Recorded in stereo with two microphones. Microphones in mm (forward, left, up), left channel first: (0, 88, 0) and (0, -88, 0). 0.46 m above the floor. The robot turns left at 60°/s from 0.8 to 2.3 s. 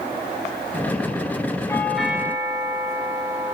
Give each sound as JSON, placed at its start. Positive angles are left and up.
{"t": 1.7, "sound": "a doorbell", "azimuth_deg": 20, "distance_m": 4.5}